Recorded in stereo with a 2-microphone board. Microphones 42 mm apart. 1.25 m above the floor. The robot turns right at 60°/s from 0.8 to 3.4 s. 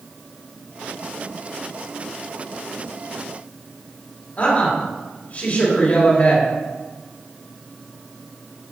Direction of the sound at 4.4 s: 40° left (ahead or behind).